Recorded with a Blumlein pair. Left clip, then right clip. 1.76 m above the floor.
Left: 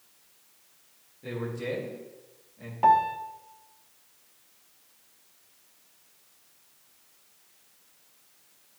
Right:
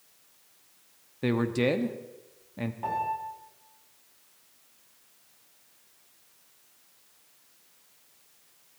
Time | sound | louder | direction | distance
1.2 | a man speaking | right 7 dB | 40° right | 1.0 m
2.8 | a piano | left 10 dB | 30° left | 1.1 m